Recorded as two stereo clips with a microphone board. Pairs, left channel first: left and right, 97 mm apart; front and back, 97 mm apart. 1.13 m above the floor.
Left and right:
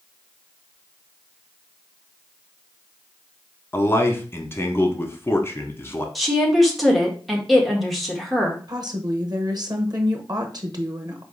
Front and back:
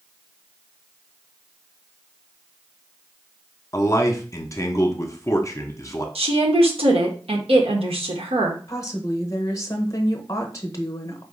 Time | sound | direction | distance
3.7 | a man speaking | 40° left | 0.9 m
6.2 | a woman speaking | straight behind | 1.1 m
8.7 | a woman speaking | 50° right | 0.8 m